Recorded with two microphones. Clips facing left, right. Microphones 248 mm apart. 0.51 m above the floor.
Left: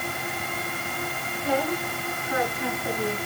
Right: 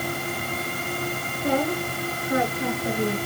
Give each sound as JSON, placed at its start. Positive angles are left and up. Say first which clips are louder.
{"t": 1.4, "sound": "a woman speaking", "louder": "right 2 dB", "side_deg": -45, "distance_m": 6.5}